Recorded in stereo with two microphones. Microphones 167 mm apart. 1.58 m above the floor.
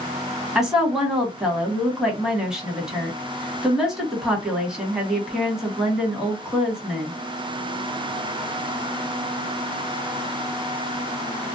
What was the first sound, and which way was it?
A woman speaking, 5° right (ahead or behind).